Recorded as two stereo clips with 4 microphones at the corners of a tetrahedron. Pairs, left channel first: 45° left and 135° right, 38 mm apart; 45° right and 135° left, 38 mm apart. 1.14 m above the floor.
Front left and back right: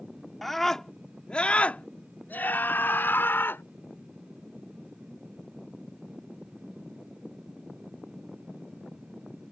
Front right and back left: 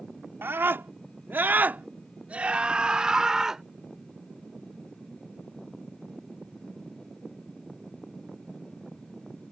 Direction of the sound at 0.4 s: 130° left.